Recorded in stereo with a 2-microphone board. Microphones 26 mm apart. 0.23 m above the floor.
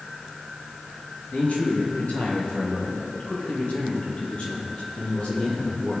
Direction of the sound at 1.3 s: 60° left (ahead or behind).